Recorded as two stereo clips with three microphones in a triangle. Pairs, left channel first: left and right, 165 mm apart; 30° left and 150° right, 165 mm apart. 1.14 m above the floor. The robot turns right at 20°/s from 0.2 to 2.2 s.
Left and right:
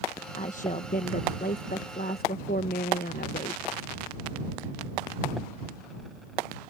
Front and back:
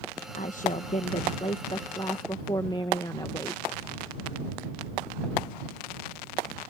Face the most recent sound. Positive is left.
turn(degrees=90)